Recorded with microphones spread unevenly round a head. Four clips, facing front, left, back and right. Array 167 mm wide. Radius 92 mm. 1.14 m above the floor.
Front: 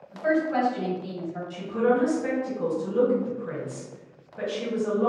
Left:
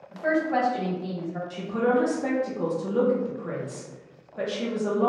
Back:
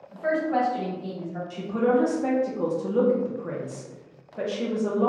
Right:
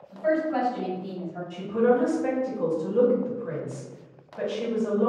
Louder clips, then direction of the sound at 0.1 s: Even, front 1 dB; 110° left.